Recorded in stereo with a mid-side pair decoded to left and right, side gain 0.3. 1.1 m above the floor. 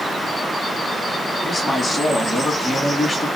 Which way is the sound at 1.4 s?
35° left.